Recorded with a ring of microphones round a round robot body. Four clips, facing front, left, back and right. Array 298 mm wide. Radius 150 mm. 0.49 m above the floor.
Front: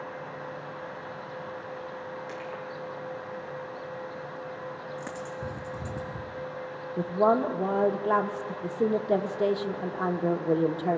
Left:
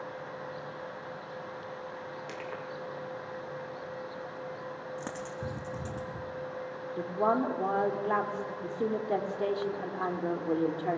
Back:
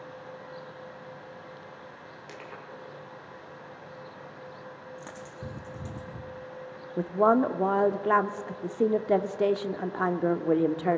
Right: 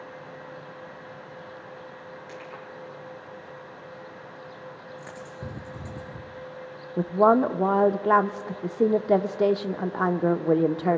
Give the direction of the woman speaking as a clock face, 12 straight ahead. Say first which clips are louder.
Right 9 dB, back 1 dB; 4 o'clock.